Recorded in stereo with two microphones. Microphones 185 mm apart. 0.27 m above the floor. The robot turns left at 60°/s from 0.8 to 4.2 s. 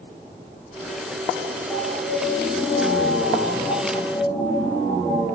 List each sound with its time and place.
1.7 s an alarm: 170° left, 9 m; by 5.2 s 20° left, 9 m